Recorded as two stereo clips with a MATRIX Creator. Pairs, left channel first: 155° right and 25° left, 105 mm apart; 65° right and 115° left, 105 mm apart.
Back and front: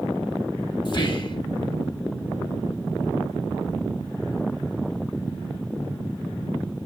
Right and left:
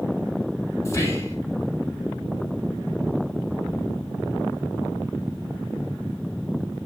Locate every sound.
0.8 s whispering: 125° right, 3 m